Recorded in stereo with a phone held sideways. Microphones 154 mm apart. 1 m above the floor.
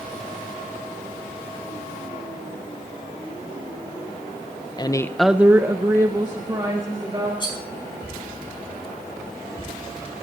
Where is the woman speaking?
30° left (ahead or behind), 0.6 m; by 7.3 s 30° right (ahead or behind), 2.5 m.